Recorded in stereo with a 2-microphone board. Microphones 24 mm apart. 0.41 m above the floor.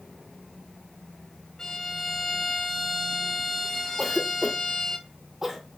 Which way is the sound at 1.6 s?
25° left (ahead or behind).